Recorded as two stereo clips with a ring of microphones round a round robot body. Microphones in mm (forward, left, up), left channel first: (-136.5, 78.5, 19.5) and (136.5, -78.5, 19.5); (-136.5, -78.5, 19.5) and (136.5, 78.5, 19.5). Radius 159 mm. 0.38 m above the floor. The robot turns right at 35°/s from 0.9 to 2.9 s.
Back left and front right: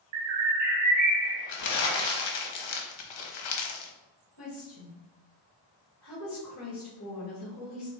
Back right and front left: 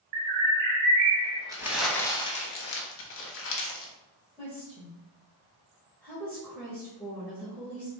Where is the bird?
5° left, 0.7 m; by 1.4 s 25° left, 0.7 m.